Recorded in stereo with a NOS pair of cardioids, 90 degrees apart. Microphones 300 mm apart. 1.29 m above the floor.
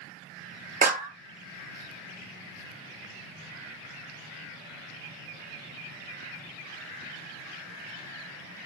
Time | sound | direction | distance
0.8 | a clap | 30° right | 0.9 m